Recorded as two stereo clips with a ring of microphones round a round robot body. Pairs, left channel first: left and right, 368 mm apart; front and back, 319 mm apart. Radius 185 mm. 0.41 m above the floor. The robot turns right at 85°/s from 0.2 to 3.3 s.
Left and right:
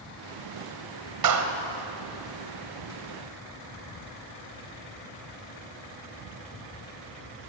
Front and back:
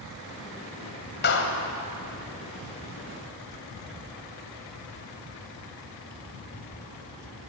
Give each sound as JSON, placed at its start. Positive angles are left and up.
{"t": 1.2, "sound": "a clap", "azimuth_deg": -60, "distance_m": 2.5}